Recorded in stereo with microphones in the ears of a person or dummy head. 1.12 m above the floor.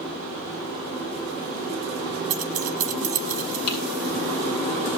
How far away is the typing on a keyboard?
About 7.5 m.